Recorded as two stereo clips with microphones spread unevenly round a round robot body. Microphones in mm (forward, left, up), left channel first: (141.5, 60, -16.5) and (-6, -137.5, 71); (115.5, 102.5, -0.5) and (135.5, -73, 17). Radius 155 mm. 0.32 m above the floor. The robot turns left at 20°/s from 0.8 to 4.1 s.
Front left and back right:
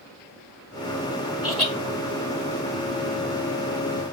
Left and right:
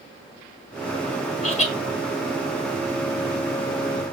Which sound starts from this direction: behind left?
Laughter, at 1.4 s.